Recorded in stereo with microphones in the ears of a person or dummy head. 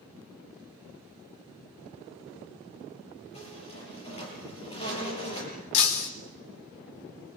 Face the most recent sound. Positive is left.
turn(degrees=75)  # may be behind; listen again after turning